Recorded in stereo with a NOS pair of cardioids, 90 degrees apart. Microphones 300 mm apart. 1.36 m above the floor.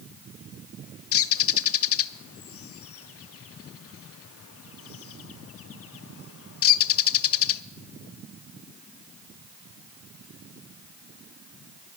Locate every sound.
1.1 s a bird: 50° left, 0.5 m